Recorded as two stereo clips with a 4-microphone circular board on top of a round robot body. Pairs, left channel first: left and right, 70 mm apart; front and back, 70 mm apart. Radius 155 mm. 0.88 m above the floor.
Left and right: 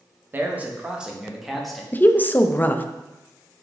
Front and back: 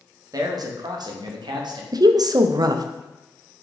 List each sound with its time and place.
0.3 s a man speaking: 150° right, 1.3 m; by 1.8 s 175° left, 1.7 m
1.9 s a woman speaking: 155° left, 0.7 m